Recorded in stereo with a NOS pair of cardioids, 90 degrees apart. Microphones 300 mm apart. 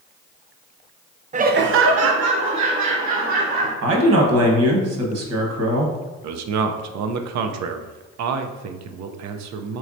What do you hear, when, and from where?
1.3 s laughter: 25° right, 0.6 m; by 3.7 s 75° right, 1.7 m
3.8 s a man speaking: 55° right, 1.3 m
6.2 s a man speaking: 65° right, 0.6 m